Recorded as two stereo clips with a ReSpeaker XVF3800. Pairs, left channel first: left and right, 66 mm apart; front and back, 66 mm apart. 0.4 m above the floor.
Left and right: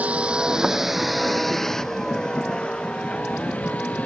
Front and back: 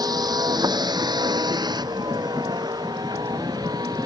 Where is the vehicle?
160° right; by 4.1 s 160° left.